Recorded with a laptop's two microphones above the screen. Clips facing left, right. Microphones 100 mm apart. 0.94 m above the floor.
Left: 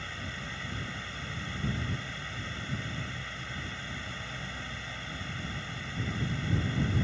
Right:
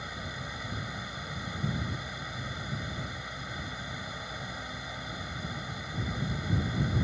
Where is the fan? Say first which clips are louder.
Right 1 dB; 15° right (ahead or behind).